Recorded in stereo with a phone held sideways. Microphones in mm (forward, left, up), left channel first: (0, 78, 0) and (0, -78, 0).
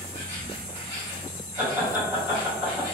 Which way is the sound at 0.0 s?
50° right (ahead or behind).